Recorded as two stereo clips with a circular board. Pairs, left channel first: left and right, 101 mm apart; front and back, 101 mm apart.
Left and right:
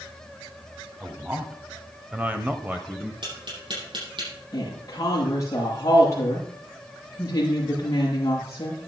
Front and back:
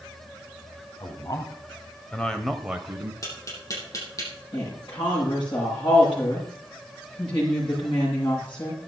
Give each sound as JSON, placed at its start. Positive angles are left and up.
{"t": 1.0, "sound": "a man speaking", "azimuth_deg": -20, "distance_m": 1.6}
{"t": 3.2, "sound": "tapping", "azimuth_deg": -55, "distance_m": 6.5}
{"t": 4.5, "sound": "a woman speaking", "azimuth_deg": 30, "distance_m": 7.5}